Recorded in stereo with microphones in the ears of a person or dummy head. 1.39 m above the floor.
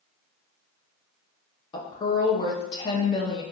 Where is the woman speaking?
30° left (ahead or behind), 0.6 m.